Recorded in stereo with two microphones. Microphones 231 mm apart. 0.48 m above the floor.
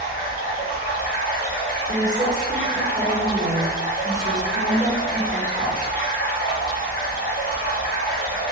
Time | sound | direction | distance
0.0 | running water | 40° left (ahead or behind) | 0.9 m
1.9 | a woman speaking | 35° right (ahead or behind) | 1.2 m